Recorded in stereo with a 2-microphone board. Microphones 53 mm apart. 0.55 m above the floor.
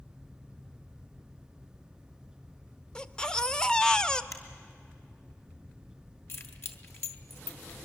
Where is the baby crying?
15° left (ahead or behind), 0.5 m.